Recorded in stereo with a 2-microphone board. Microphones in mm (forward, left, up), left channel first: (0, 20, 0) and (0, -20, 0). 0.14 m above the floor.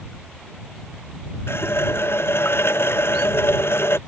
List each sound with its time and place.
1.5 s a running tap: 75° left (ahead or behind)